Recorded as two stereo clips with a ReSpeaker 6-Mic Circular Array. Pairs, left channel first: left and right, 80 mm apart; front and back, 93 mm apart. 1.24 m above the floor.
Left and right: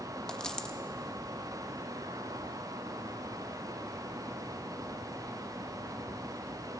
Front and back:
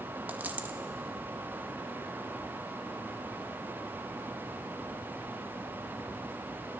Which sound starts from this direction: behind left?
A dropped coin, at 0.3 s.